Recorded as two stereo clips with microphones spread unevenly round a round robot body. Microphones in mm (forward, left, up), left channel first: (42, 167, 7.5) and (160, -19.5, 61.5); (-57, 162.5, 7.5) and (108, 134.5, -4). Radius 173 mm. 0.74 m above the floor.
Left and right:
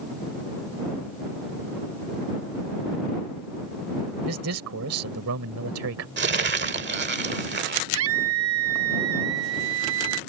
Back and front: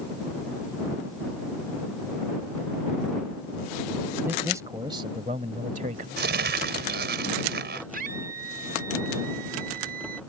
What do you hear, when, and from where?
4.2 s a man speaking: 95° right; by 6.1 s 70° right
6.2 s crumpling: 20° right
7.9 s a scream: 70° right